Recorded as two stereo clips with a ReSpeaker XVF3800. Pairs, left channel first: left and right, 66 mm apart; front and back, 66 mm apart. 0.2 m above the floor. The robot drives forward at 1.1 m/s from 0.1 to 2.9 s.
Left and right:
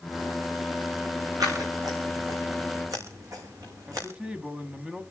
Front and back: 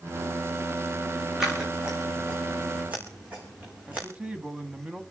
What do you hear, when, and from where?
1.4 s scissors: 100° right, 6 m; by 4.1 s 115° right, 6.5 m
3.9 s a man speaking: 135° right, 1.0 m